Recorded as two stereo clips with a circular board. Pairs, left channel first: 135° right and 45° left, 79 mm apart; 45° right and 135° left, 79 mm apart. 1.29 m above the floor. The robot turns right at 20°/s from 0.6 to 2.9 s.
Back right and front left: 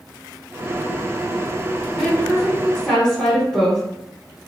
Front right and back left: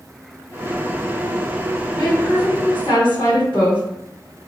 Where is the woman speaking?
75° right, 1.8 m; by 3.8 s 55° right, 1.8 m.